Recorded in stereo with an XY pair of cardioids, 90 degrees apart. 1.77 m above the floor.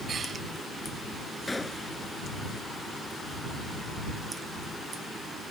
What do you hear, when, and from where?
1.5 s a gunshot: 20° left